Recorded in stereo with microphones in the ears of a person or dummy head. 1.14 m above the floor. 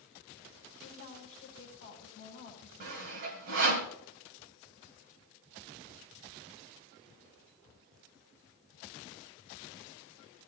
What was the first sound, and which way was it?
A woman speaking, 35° left (ahead or behind).